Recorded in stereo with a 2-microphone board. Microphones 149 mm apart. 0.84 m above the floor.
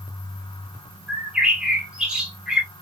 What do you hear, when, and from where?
1.1 s a bird: 5° right (ahead or behind), 1.8 m